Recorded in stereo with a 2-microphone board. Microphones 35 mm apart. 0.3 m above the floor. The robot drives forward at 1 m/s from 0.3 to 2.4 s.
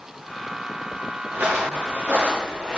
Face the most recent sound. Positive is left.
turn(degrees=-40)  # may be behind; listen again after turning